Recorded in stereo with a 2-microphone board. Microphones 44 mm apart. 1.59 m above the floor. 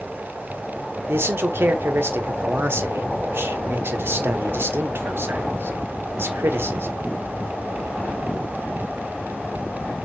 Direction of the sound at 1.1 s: 70° right (ahead or behind).